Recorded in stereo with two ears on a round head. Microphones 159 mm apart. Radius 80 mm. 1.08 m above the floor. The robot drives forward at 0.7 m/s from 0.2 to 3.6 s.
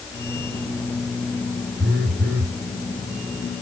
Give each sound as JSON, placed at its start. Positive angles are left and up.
{"t": 1.8, "sound": "a phone buzzing", "side_deg": -65, "distance_m": 2.5}